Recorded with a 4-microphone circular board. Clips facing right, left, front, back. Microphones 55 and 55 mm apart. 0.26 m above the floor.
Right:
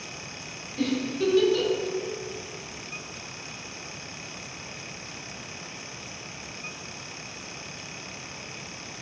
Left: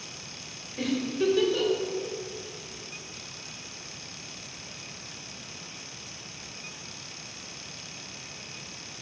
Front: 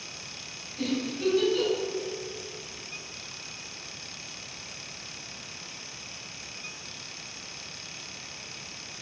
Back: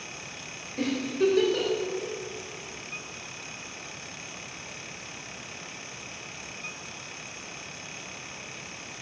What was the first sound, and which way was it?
A giggle, 165° left.